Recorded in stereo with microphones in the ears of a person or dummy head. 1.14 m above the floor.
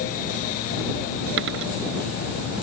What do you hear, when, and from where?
1.4 s a dropped coin: 65° right (ahead or behind)